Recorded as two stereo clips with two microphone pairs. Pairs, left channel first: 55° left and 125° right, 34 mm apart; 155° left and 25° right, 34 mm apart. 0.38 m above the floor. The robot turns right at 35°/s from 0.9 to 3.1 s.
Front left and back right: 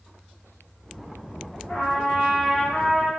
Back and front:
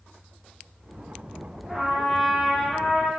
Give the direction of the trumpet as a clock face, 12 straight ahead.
10 o'clock.